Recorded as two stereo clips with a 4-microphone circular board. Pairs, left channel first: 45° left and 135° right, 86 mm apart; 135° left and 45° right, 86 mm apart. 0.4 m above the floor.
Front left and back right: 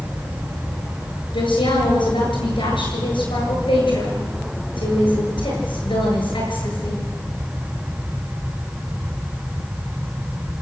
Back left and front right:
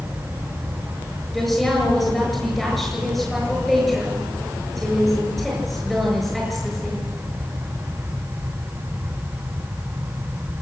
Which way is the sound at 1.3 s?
45° left.